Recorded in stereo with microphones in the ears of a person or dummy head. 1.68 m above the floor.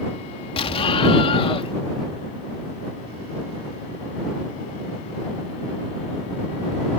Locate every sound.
0.6 s an explosion: 30° left (ahead or behind)